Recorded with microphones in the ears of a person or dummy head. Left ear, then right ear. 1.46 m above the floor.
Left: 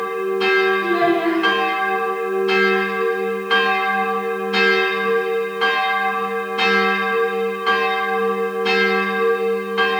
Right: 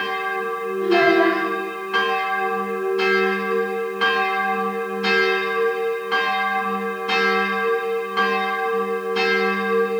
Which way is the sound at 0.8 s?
55° right (ahead or behind).